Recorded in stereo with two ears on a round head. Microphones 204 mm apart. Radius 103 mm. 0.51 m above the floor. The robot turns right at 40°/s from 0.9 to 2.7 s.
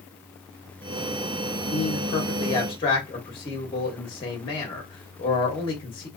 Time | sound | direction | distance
1.7 | a man speaking | 25° left (ahead or behind) | 1.0 m